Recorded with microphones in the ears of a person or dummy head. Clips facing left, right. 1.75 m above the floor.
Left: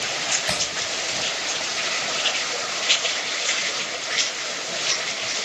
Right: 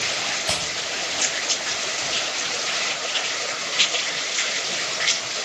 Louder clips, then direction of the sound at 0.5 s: Even; 15° right (ahead or behind).